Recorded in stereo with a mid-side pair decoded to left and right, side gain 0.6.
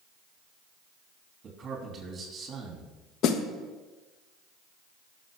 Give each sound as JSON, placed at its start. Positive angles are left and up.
{"t": 1.4, "sound": "a man speaking", "azimuth_deg": -35, "distance_m": 3.0}
{"t": 3.2, "sound": "a snare drum", "azimuth_deg": 60, "distance_m": 1.1}